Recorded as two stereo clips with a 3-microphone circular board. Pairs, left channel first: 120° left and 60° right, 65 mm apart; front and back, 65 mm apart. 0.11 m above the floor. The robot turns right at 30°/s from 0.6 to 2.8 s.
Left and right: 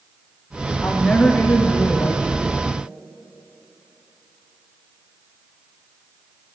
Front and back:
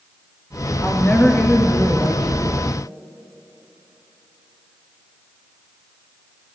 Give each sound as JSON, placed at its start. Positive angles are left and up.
{"t": 0.8, "sound": "a woman speaking", "azimuth_deg": 40, "distance_m": 1.3}